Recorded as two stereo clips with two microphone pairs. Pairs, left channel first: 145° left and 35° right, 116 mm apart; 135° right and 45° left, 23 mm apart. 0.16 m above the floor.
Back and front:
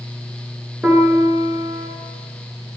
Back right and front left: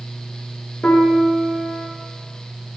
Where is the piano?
115° right, 0.5 m.